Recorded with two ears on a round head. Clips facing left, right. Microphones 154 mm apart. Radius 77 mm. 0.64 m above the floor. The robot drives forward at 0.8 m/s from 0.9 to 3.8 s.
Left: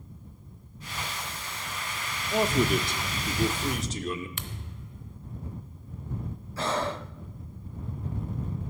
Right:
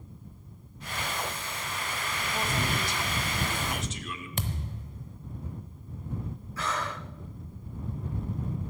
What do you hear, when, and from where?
2.3 s a man speaking: 50° left (ahead or behind), 1.0 m; by 4.3 s 35° left (ahead or behind), 1.5 m
4.4 s a thud: 35° right (ahead or behind), 0.9 m
6.6 s breathing: 25° left (ahead or behind), 0.5 m